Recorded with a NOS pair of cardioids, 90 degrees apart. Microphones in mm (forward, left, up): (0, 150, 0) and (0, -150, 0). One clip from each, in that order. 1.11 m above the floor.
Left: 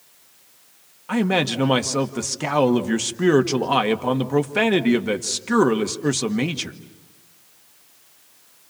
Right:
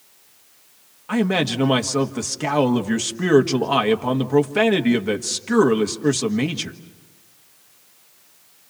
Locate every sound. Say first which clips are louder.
1.1 s a man speaking: even; 5° left, 1.6 m